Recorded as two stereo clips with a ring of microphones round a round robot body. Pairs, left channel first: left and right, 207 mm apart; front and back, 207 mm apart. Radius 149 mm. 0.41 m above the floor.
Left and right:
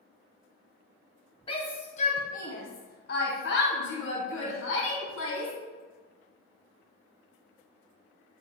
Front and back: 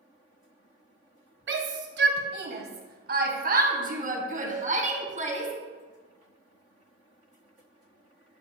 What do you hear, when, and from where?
1.5 s a shout: 160° left, 2.0 m; by 5.5 s 125° left, 3.5 m